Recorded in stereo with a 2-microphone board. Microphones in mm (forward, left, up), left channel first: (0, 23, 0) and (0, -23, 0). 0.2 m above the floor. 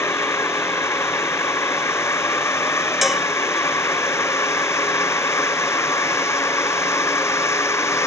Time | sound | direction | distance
0.0 | a drone | 70° left (ahead or behind) | ?
3.0 | dishes clattering | 5° right (ahead or behind) | ?